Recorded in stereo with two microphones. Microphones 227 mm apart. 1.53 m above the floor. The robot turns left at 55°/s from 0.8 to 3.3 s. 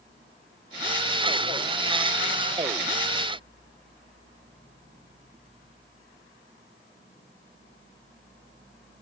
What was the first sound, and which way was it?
Only background noise.